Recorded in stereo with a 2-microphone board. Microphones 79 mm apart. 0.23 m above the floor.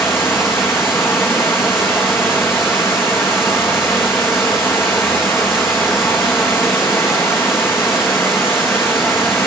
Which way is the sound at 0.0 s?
35° left (ahead or behind).